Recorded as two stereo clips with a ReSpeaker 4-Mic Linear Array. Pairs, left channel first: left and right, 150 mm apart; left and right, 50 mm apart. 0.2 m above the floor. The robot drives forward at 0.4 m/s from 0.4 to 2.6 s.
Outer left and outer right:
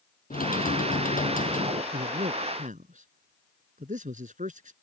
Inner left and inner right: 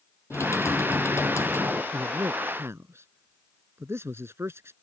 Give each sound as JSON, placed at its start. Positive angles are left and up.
{"t": 0.3, "sound": "typing on a keyboard", "side_deg": 70}
{"t": 1.9, "sound": "a man speaking", "side_deg": -60}